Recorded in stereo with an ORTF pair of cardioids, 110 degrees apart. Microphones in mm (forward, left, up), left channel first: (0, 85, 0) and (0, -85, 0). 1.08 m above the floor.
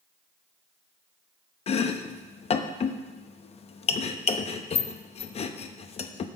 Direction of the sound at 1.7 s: 40° left.